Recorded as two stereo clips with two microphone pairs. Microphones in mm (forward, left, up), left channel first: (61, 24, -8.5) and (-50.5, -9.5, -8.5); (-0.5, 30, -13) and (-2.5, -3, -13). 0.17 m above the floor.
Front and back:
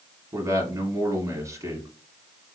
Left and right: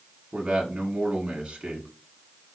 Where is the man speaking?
130° right, 1.4 m.